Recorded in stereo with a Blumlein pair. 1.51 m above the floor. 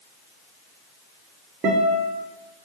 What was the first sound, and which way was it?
A guitar, 25° right.